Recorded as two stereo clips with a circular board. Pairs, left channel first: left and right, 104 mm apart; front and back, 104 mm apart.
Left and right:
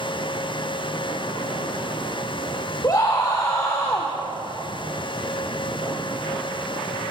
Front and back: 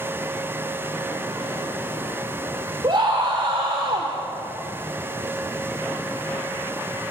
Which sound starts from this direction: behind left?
A scream, at 2.8 s.